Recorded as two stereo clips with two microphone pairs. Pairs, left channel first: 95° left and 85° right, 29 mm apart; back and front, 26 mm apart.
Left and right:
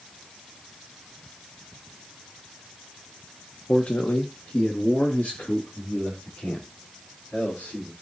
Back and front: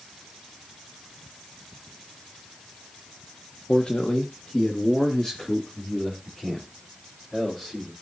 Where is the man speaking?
140° left, 1.0 m; by 7.9 s 110° left, 4.5 m.